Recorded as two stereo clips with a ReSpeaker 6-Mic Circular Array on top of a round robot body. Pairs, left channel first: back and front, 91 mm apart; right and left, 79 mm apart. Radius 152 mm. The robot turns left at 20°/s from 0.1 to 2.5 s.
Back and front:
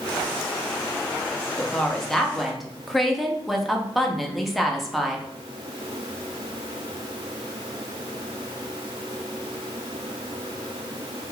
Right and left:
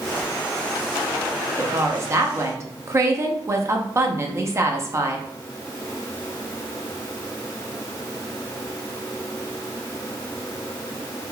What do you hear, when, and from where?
1.6 s a woman speaking: 110° left, 0.9 m; by 5.3 s 90° left, 0.9 m